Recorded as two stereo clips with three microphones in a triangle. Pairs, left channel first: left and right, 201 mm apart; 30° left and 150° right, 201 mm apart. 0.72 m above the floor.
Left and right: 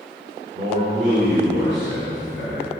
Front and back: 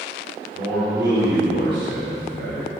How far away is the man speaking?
About 3 m.